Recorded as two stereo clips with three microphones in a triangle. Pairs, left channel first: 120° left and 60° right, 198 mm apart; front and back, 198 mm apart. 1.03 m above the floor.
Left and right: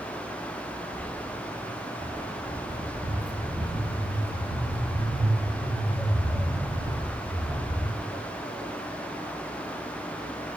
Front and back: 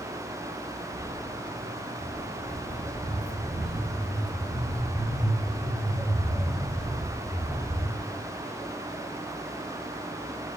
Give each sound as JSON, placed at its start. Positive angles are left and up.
{"t": 0.9, "sound": "footsteps", "azimuth_deg": -135, "distance_m": 3.5}